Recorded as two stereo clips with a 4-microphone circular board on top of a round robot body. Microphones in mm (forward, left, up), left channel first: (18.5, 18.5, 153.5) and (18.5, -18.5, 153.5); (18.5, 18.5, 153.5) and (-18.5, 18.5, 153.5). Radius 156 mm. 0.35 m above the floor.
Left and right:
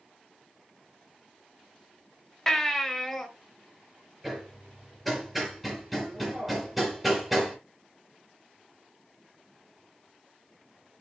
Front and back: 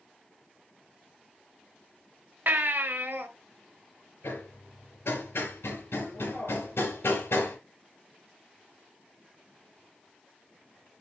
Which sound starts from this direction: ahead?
Hammering, at 4.2 s.